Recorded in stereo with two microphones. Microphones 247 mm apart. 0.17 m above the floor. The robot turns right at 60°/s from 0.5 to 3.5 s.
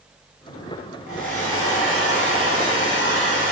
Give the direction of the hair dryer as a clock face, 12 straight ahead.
12 o'clock.